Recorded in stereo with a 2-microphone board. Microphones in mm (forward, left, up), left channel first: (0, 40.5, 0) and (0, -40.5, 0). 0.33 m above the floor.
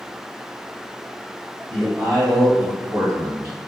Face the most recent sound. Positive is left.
turn(degrees=-40)  # may be behind; listen again after turning